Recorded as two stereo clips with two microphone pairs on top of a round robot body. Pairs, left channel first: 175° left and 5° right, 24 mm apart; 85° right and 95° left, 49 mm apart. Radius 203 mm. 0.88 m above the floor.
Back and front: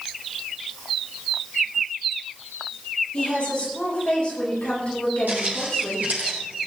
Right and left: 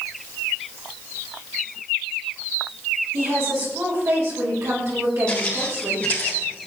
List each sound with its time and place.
3.1 s a woman speaking: 125° left, 7 m
5.3 s footsteps: 10° right, 3 m; by 6.7 s 30° right, 2.5 m